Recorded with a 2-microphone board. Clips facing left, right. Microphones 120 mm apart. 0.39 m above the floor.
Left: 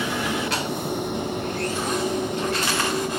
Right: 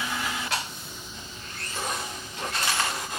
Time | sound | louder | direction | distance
0.0 | a vehicle | left 7 dB | 60° left (ahead or behind) | ?